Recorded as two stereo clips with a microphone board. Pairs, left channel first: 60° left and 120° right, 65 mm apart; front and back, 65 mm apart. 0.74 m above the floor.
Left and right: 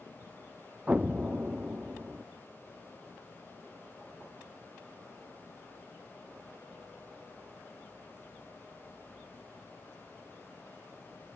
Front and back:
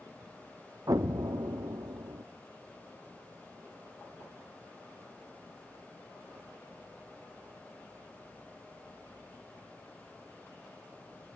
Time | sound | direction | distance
0.9 | an explosion | 170° left | 0.9 m